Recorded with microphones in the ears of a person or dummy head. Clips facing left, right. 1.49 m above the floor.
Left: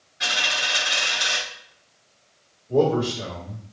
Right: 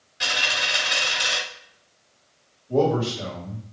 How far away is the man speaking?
About 1.9 m.